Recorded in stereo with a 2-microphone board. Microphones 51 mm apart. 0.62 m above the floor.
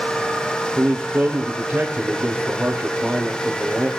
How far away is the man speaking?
About 1.8 m.